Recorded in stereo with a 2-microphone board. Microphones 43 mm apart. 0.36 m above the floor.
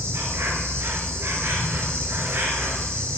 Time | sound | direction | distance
0.0 | an insect | 75° right (ahead or behind) | 1.2 m